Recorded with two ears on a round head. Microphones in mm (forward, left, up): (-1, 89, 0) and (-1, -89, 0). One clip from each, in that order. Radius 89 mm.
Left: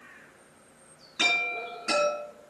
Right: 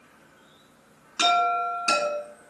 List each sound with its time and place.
1.2 s a chime: 40° right (ahead or behind), 4.5 m